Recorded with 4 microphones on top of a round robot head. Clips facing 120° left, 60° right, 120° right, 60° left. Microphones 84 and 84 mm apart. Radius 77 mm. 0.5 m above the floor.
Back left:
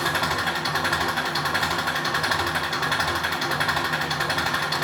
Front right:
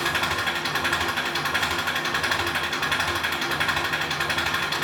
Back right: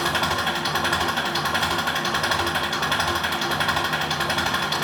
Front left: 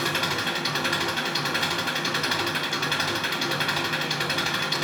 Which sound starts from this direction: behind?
An engine running, at 0.0 s.